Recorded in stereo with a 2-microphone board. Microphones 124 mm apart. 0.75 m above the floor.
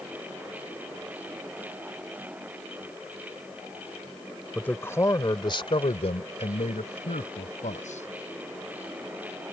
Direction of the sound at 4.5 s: 10° left (ahead or behind).